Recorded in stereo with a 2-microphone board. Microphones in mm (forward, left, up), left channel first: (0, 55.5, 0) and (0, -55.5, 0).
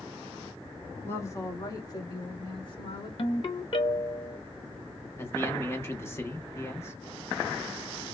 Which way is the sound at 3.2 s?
55° left (ahead or behind).